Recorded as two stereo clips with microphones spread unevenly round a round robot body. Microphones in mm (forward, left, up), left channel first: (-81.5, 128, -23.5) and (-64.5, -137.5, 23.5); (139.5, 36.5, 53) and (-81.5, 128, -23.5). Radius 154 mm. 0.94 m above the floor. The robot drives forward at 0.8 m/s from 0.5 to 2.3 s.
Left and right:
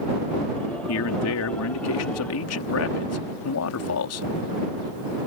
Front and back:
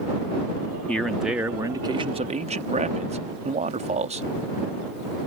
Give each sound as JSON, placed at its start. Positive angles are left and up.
{"t": 0.9, "sound": "a man speaking", "azimuth_deg": 70}